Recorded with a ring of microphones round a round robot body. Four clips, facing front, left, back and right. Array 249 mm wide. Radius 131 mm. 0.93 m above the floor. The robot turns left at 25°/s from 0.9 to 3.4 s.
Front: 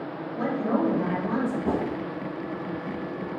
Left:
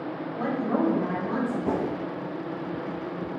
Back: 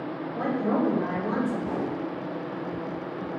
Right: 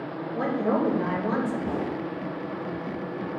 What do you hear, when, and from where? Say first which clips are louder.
0.3 s a woman speaking: right 2 dB, even; 110° right, 2.5 m; by 1.6 s 125° right, 2.5 m
1.6 s a whoosh: left 2 dB, front 3 dB; 40° left, 0.8 m; by 1.9 s 35° left, 0.8 m